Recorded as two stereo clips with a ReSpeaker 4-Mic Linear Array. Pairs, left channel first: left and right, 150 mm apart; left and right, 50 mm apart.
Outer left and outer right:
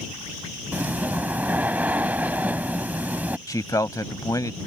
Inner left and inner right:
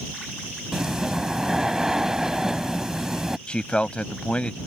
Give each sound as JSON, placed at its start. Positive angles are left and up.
{"t": 0.7, "sound": "breathing", "side_deg": -10}
{"t": 3.5, "sound": "a man speaking", "side_deg": 25}